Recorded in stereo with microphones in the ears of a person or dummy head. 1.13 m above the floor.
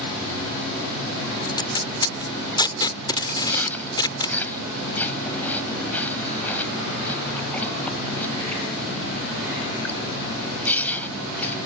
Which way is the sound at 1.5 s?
25° left (ahead or behind).